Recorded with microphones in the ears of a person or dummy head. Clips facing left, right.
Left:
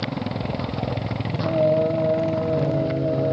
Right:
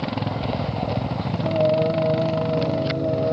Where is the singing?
10° left (ahead or behind), 1.9 m.